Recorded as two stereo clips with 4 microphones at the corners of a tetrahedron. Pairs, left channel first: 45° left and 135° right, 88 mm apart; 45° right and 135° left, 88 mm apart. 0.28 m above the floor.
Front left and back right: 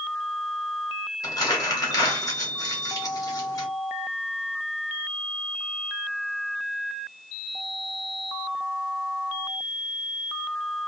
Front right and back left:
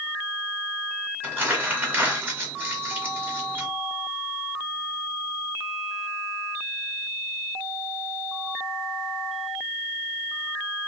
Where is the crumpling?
75° left, 1.2 m.